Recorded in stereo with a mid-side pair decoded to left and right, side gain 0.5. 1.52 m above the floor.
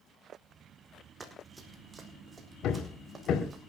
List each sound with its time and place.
1.2 s running footsteps: 20° right, 5 m; by 3.6 s 30° right, 7.5 m
2.6 s hammering: 60° left, 3.5 m